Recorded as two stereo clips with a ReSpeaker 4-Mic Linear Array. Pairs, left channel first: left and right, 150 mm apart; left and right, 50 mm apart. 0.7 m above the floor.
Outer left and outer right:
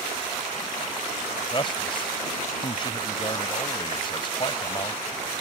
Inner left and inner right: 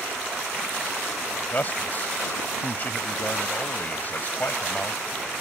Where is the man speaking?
35° left (ahead or behind).